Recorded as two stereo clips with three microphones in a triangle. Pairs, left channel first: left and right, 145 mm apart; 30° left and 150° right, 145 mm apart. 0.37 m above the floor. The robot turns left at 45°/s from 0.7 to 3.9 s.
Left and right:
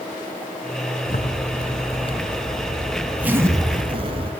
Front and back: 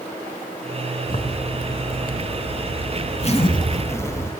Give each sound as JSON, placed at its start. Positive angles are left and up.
{"t": 1.1, "sound": "a zipper", "azimuth_deg": 85, "distance_m": 1.2}